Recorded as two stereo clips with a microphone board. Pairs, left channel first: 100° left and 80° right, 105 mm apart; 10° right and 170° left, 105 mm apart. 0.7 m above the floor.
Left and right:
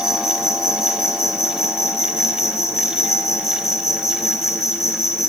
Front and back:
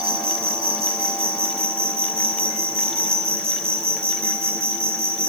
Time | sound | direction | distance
0.0 | an insect | 155° left | 1.8 m